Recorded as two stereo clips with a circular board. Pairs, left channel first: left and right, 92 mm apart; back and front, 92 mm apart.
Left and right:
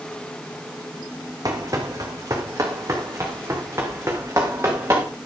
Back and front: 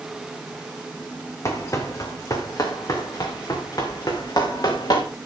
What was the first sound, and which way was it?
Running footsteps, 130° right.